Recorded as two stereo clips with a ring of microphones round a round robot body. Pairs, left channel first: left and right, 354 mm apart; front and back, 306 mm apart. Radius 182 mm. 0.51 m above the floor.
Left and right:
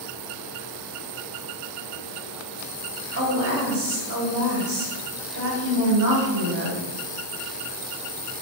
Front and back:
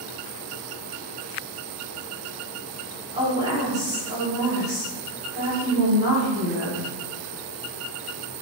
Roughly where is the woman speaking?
Behind right.